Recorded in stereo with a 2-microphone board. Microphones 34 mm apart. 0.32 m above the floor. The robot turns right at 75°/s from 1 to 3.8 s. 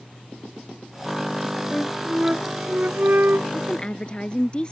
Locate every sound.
1.7 s a flute: 160° left; by 3.4 s 70° right
3.5 s a woman speaking: 45° left (ahead or behind); by 4.7 s 25° left (ahead or behind)